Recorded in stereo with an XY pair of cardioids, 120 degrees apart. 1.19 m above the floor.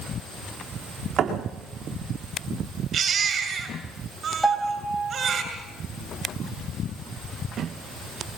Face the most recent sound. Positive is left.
turn(degrees=-5)